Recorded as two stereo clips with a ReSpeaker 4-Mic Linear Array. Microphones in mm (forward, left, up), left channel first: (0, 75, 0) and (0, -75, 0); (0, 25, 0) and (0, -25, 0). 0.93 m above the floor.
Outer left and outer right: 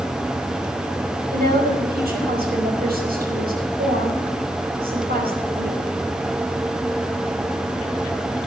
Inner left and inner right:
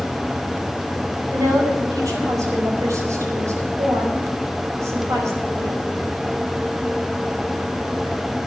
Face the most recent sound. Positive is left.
turn(degrees=-80)